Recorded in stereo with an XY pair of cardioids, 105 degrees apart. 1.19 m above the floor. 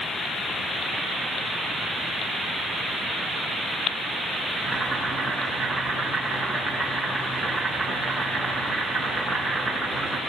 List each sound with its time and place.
4.6 s boiling: 5° right, 6 m